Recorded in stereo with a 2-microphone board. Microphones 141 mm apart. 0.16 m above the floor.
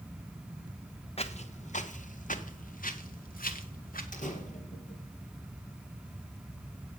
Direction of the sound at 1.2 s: 45° left (ahead or behind).